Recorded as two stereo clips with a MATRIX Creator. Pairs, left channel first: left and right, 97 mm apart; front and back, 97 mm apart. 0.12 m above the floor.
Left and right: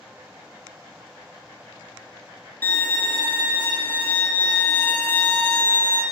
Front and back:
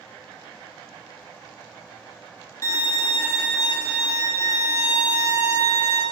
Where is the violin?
35° left, 0.9 m.